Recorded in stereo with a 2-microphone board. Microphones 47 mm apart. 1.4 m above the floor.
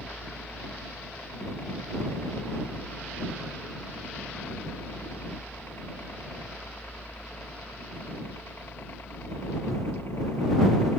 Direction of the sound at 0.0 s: 55° left (ahead or behind).